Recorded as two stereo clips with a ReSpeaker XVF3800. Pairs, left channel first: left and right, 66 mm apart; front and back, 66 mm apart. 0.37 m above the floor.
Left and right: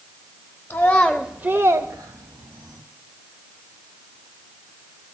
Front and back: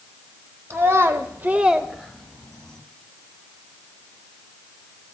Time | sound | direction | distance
0.7 | a child speaking | 140° left | 0.8 m